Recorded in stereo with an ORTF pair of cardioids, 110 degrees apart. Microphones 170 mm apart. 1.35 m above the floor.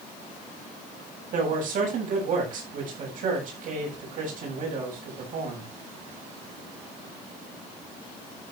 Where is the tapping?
I don't hear tapping.